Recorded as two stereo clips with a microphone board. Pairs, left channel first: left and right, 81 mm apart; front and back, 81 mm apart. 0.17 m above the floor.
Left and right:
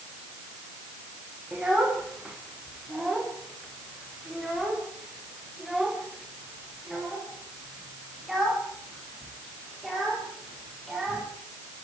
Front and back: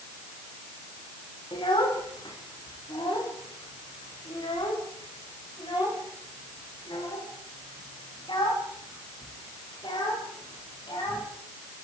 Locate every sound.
1.5 s a child speaking: 10° right, 5.5 m; by 11.3 s straight ahead, 12 m